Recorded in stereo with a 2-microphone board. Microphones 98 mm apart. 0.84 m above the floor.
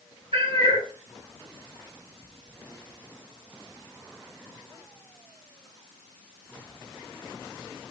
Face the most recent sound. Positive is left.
turn(degrees=-75)  # may be behind; listen again after turning